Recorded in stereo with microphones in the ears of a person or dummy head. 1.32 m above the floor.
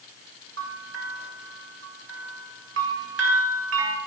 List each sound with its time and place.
0.6 s a bell: 75° right (ahead or behind), 1.3 m